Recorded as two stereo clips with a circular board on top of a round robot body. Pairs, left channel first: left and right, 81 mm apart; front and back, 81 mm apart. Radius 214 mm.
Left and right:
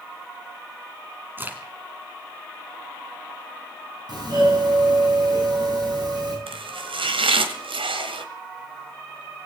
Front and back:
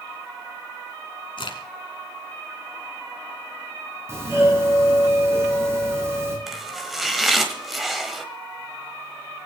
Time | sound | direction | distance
1.4 | a crack | 20° right | 1.7 m
4.1 | a doorbell | 120° right | 9.5 m
6.5 | chopping | 90° right | 1.3 m